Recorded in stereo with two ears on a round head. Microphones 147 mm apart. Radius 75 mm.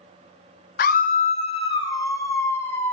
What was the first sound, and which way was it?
A scream, 60° left (ahead or behind).